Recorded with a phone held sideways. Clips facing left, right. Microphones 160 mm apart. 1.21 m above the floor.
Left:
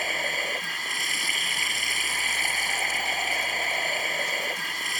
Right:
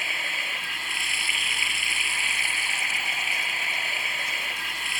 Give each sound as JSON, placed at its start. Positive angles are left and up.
{"t": 0.0, "sound": "running water", "side_deg": 40}